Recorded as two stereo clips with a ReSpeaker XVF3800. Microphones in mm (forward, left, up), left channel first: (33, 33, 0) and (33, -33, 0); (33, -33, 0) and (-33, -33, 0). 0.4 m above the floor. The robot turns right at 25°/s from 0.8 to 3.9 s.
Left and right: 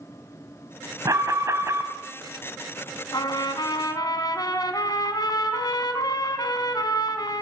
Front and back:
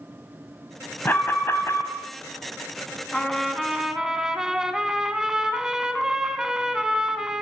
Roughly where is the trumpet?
Left.